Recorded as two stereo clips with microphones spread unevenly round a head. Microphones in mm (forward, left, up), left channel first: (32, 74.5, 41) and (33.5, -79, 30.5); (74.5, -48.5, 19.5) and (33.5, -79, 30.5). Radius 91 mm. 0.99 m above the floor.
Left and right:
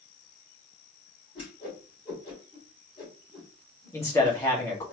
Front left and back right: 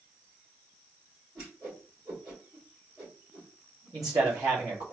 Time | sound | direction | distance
1.4 | a whoosh | 150° left | 2.5 m
3.9 | a man speaking | 165° left | 1.5 m